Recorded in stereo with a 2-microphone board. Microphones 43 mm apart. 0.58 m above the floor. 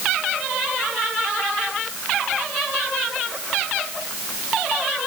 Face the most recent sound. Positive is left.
No sound to turn to.